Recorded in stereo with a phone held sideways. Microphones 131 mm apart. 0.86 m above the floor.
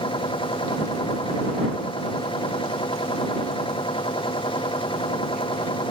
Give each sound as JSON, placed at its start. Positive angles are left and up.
{"t": 0.0, "sound": "a machine running", "side_deg": 40}